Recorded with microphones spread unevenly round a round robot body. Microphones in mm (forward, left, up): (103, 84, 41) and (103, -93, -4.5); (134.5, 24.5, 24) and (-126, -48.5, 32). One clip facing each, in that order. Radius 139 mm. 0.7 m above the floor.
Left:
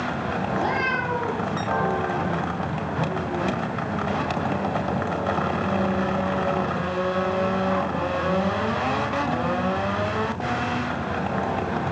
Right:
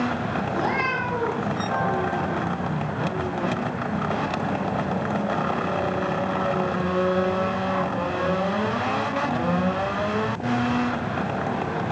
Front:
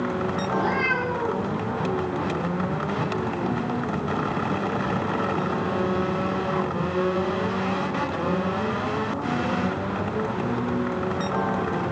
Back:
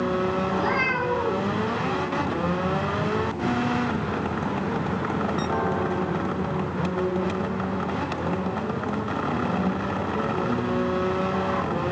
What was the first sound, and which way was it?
A cat meowing, 115° right.